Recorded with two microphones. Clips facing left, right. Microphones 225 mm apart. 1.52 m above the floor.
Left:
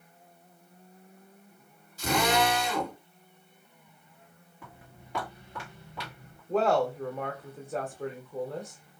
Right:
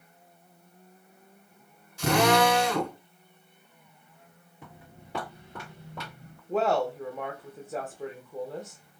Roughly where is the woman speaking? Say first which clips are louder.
Left 1 dB; centre.